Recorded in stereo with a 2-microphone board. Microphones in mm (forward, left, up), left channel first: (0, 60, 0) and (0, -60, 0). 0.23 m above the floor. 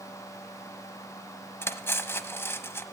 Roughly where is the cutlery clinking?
Centre.